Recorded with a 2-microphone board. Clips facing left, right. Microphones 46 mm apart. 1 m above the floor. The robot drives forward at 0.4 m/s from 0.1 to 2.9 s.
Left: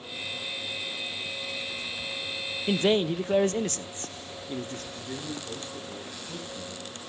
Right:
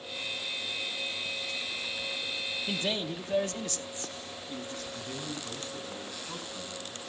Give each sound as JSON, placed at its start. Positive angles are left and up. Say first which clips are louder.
{"t": 2.7, "sound": "a man speaking", "louder": "left 11 dB", "side_deg": 45, "distance_m": 0.8}
{"t": 4.9, "sound": "a man speaking", "louder": "left 2 dB", "side_deg": -35, "distance_m": 9.0}